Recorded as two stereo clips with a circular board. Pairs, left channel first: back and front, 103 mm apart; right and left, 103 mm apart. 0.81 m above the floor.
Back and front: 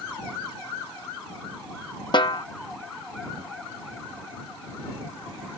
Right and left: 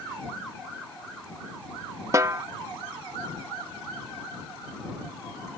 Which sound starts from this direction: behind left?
A snare drum, at 2.1 s.